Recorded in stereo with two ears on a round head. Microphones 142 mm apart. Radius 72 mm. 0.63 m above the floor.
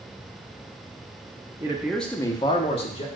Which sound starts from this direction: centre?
A man speaking, at 1.6 s.